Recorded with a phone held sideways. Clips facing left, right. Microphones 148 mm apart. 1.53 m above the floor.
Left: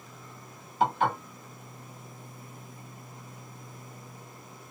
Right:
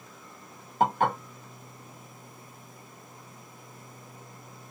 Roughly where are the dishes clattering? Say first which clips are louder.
Right 1 dB; right.